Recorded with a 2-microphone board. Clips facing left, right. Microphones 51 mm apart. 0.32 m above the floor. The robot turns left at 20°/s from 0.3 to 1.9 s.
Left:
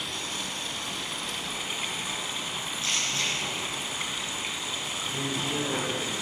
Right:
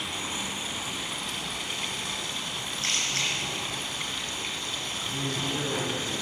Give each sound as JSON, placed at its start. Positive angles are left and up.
{"t": 0.0, "sound": "running water", "azimuth_deg": -160, "distance_m": 1.5}
{"t": 2.8, "sound": "a camera shutter", "side_deg": -60, "distance_m": 3.5}
{"t": 5.0, "sound": "a man speaking", "side_deg": 20, "distance_m": 3.0}